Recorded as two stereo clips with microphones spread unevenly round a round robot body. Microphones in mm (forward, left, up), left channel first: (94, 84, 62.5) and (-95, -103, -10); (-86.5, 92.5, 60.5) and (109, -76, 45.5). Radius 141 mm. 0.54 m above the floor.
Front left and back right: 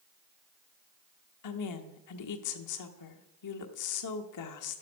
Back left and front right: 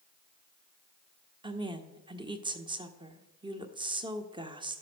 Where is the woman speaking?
25° left, 1.1 m.